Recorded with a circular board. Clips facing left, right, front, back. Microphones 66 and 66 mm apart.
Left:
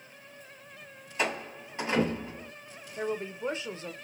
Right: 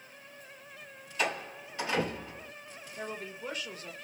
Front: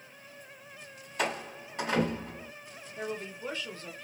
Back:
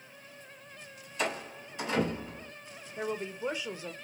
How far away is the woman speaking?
About 0.7 m.